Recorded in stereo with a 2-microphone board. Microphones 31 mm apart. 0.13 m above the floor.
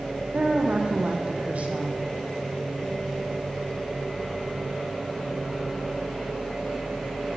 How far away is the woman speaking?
About 4.5 m.